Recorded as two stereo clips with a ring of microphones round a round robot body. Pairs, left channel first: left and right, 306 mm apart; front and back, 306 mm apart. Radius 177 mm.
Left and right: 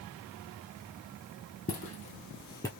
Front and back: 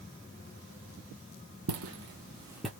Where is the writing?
I don't hear writing.